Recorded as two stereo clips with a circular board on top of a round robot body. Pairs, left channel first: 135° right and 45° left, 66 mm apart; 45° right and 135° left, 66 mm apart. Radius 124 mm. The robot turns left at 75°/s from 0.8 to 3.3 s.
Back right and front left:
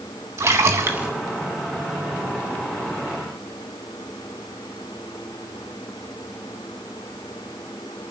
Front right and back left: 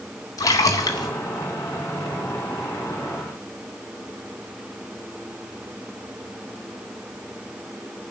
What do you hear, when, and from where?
0.4 s a splash: 10° right, 0.7 m; by 1.1 s 30° right, 0.7 m